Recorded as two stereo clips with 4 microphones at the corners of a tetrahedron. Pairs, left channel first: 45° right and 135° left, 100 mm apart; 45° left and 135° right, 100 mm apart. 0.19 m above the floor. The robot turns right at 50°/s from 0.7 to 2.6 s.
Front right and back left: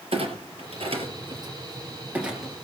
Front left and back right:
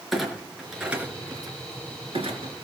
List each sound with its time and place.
0.1 s a clunk: 135° left, 3.5 m; by 2.5 s 130° right, 3.5 m